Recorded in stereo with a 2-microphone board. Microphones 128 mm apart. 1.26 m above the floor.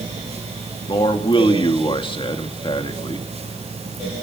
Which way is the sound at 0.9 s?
40° left (ahead or behind).